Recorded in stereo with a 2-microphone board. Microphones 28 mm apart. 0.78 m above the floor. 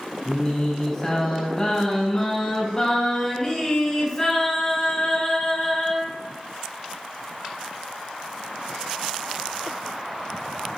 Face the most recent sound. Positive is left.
turn(degrees=15)  # may be behind; listen again after turning